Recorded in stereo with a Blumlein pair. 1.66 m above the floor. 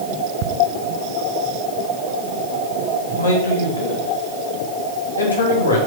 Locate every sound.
0.4 s ticking: 45° right, 0.8 m
3.1 s a man speaking: 70° left, 3 m